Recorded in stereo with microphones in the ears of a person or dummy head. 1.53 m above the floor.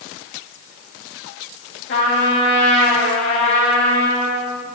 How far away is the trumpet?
About 8.5 m.